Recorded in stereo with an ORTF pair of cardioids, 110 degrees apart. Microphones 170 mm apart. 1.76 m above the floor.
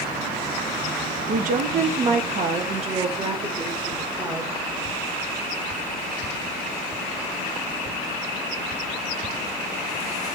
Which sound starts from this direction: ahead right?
A woman speaking, at 1.3 s.